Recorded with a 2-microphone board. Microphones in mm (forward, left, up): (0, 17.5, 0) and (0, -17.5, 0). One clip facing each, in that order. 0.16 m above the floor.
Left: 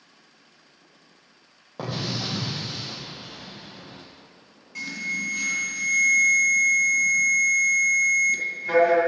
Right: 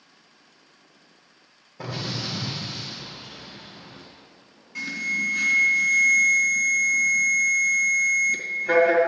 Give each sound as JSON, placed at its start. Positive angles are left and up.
{"t": 1.8, "sound": "an explosion", "side_deg": 75, "distance_m": 1.9}
{"t": 4.8, "sound": "an alarm", "side_deg": -5, "distance_m": 2.0}